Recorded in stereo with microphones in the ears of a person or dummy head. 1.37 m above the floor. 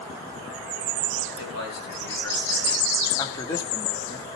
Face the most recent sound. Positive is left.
turn(degrees=25)  # may be behind; listen again after turning